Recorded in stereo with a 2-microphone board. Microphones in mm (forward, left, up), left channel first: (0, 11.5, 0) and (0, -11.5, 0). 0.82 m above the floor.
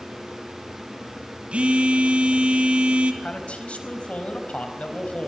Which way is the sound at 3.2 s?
75° left (ahead or behind).